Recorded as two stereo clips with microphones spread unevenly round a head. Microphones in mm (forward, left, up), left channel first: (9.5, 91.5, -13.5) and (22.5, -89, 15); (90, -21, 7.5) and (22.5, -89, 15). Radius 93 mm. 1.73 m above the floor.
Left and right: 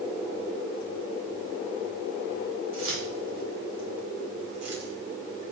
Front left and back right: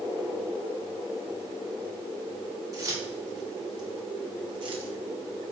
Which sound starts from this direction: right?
Keys jangling, at 2.7 s.